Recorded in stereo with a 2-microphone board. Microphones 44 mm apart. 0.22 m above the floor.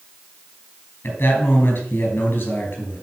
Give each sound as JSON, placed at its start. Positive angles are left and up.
{"t": 1.0, "sound": "a man speaking", "side_deg": 55, "distance_m": 4.0}